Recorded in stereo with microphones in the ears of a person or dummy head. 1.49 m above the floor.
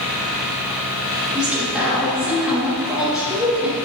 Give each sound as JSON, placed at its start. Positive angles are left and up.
{"t": 1.4, "sound": "a woman speaking", "side_deg": -5, "distance_m": 0.9}